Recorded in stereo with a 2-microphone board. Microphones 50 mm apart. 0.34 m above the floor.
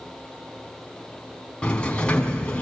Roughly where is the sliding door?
Left.